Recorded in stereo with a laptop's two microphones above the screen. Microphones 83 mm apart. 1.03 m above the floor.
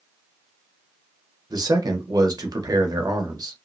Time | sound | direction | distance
1.5 | a man speaking | 50° right (ahead or behind) | 0.7 m